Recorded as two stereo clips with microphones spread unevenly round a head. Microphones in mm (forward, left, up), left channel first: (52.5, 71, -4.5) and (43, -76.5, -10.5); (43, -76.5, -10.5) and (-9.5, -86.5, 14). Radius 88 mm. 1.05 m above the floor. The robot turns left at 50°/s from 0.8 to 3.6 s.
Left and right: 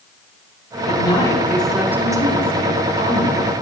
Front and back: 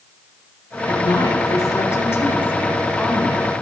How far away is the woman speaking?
About 3 m.